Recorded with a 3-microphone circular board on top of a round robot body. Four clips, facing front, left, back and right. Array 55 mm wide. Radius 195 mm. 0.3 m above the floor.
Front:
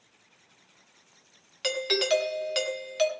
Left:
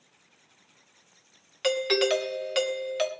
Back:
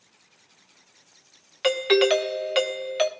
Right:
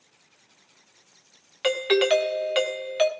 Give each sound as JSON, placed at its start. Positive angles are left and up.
{"t": 1.6, "sound": "a doorbell", "azimuth_deg": -150, "distance_m": 2.5}